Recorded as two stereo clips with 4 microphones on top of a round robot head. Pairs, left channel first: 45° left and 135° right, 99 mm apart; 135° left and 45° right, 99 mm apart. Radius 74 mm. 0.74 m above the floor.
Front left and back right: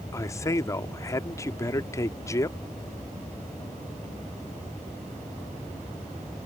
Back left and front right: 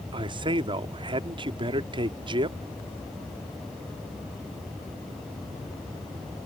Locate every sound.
0.1 s a man speaking: 10° right